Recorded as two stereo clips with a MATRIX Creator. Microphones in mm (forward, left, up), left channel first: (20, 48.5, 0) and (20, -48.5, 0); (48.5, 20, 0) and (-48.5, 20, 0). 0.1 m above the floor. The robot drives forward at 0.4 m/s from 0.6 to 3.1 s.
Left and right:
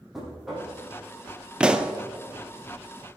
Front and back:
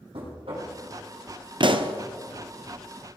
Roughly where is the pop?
Behind.